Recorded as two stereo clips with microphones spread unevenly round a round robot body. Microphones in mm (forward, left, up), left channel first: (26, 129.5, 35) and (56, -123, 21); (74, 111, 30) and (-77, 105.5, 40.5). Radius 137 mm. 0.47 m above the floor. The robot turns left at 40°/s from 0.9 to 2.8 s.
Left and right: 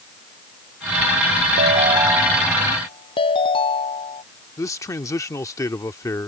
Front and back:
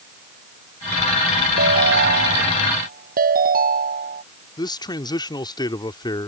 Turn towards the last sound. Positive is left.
turn(degrees=25)